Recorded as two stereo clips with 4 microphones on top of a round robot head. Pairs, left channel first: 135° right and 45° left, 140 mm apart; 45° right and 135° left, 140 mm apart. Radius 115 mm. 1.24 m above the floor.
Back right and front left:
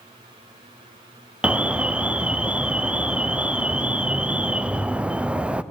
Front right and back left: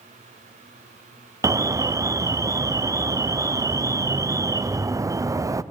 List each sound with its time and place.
1.4 s an alarm: 115° left, 0.9 m